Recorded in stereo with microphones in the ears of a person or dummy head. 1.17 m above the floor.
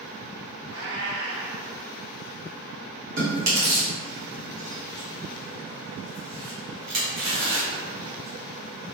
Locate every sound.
0.7 s a cat meowing: 60° right (ahead or behind), 1.9 m
3.2 s chewing: 55° right (ahead or behind), 1.0 m